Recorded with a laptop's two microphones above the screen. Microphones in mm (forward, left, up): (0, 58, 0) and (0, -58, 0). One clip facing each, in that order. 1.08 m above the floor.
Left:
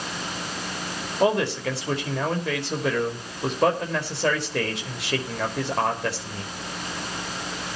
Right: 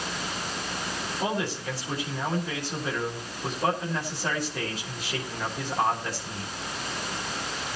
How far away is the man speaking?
About 5.5 m.